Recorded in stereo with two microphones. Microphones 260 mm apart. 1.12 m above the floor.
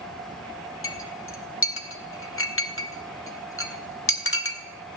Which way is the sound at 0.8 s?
55° left (ahead or behind).